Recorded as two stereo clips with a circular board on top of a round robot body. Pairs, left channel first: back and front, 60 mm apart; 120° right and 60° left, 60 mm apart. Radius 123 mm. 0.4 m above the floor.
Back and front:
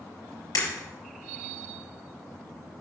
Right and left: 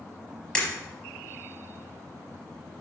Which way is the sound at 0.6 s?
165° left.